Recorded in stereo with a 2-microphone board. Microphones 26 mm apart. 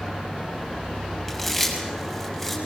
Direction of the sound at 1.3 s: 10° left (ahead or behind).